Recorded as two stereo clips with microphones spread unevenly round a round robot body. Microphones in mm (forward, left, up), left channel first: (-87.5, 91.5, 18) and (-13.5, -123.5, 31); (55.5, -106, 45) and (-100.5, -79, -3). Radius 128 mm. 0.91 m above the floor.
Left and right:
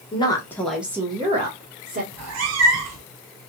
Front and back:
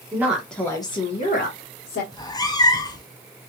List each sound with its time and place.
0.1 s a woman speaking: 150° left, 1.0 m; by 2.0 s 25° right, 1.3 m
2.1 s a cat meowing: 70° right, 0.6 m